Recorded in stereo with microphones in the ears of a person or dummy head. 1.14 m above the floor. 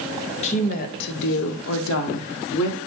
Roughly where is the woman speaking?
Left.